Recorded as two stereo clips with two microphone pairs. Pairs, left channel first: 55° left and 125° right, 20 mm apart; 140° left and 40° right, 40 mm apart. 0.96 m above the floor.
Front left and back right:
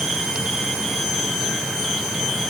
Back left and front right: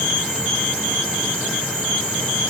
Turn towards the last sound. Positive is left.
No sound to turn to.